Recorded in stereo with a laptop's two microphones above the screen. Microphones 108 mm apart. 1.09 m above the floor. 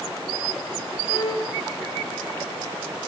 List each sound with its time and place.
1.1 s a violin: 45° left (ahead or behind), 6 m